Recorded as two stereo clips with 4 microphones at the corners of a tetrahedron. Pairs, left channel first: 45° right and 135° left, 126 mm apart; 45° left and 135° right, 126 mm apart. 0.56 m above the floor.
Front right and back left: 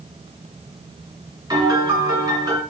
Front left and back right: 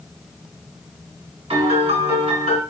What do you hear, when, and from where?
1.5 s a piano: 170° right, 1.6 m